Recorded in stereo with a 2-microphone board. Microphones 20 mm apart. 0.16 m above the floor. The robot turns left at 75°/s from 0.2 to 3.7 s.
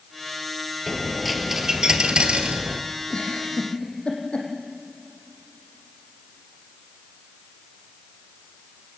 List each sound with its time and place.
0.9 s a dropped coin: 30° left, 1.7 m; by 2.8 s 120° right, 1.7 m
3.1 s a giggle: 50° left (ahead or behind), 4.5 m; by 4.5 s 80° left, 4.5 m